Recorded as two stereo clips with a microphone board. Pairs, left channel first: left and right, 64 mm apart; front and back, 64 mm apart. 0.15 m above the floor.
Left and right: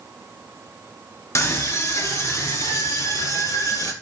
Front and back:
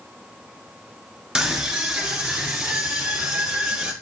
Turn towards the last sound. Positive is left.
turn(degrees=100)